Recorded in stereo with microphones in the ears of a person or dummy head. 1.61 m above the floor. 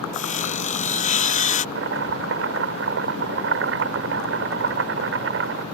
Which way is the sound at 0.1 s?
35° left (ahead or behind).